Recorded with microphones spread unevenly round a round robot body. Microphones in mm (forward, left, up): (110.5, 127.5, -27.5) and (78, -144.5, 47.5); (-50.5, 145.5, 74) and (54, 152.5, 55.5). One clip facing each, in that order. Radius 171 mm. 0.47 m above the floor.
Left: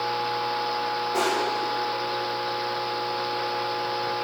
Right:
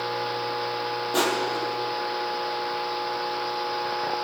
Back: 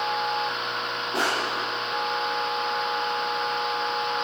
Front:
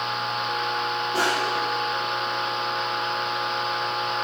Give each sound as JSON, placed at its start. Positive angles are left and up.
{"t": 1.1, "sound": "crushing", "azimuth_deg": -110, "distance_m": 3.0}